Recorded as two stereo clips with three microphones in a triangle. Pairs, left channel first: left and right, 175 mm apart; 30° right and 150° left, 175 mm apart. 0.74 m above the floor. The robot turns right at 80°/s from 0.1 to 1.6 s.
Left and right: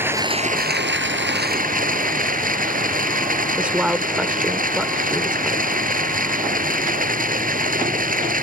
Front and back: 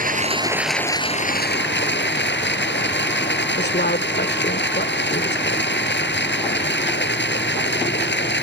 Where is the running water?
170° right; by 8.4 s 50° right.